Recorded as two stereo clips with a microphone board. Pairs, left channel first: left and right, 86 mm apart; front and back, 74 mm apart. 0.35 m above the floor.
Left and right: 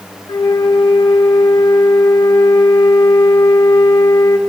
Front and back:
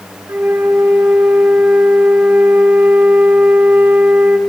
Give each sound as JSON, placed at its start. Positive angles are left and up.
{"t": 0.3, "sound": "a flute", "azimuth_deg": 120, "distance_m": 0.5}